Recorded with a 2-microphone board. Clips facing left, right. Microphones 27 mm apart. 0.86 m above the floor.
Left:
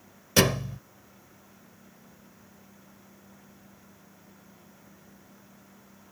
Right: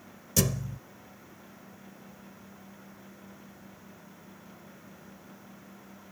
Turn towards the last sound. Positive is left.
turn(degrees=50)  # may be behind; listen again after turning